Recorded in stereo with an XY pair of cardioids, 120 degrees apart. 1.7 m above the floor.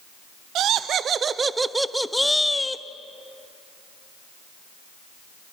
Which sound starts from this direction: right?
Laughter, at 0.6 s.